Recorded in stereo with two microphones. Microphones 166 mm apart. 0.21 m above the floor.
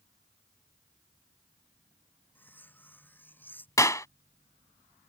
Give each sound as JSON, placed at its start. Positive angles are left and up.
{"t": 2.4, "sound": "cutlery clinking", "side_deg": 10}
{"t": 3.8, "sound": "a clap", "side_deg": 20}